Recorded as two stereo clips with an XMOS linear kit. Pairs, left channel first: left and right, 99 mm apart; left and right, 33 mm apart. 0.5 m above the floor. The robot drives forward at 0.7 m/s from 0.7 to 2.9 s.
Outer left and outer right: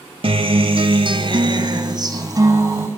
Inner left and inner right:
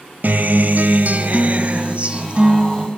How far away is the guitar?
About 1.6 m.